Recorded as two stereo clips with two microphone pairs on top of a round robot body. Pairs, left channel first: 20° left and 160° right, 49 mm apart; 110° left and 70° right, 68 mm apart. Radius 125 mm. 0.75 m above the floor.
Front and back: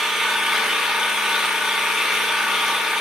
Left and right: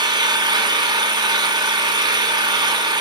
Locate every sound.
0.0 s an engine running: 80° right, 1.3 m